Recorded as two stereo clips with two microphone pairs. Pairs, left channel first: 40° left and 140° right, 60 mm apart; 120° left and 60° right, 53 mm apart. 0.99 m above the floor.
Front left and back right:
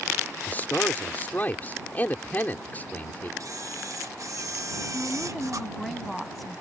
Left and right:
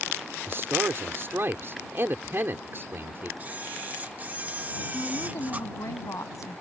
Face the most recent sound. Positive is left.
turn(degrees=125)